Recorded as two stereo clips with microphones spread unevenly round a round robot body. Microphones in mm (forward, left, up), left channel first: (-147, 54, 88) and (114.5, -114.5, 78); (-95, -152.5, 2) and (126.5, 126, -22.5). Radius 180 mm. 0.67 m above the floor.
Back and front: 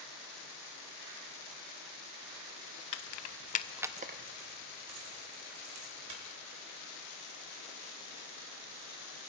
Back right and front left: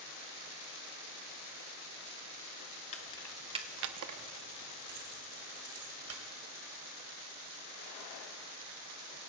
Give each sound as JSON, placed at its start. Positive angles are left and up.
{"t": 2.9, "sound": "keys jangling", "azimuth_deg": 160, "distance_m": 0.8}